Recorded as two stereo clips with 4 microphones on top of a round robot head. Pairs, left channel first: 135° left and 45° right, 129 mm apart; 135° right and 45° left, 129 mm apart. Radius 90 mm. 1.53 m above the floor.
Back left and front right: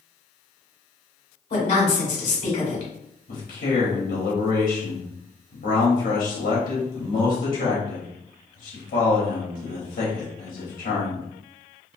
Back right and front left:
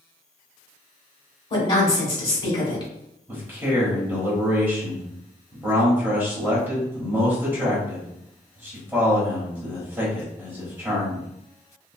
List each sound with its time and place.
1.5 s a woman speaking: 175° left, 1.4 m
3.3 s a man speaking: 115° left, 1.0 m